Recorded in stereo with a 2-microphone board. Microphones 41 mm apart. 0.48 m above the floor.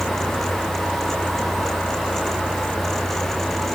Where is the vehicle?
50° left (ahead or behind); by 3.8 s 55° left (ahead or behind).